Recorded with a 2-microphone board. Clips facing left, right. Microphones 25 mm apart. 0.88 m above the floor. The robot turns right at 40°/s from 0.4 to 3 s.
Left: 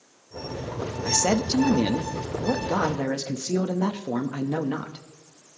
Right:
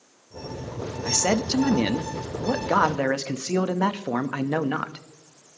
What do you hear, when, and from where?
1.1 s a man speaking: 160° right, 0.8 m; by 5.0 s 80° right, 0.8 m